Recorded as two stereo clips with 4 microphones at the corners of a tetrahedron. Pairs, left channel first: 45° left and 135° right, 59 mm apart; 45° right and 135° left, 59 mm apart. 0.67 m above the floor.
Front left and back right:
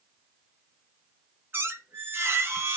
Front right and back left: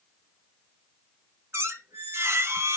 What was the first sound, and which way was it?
A squeak, 175° left.